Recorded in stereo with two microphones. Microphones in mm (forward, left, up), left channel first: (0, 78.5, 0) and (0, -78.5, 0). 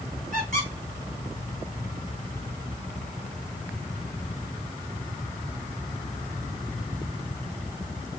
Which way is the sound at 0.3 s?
60° right (ahead or behind).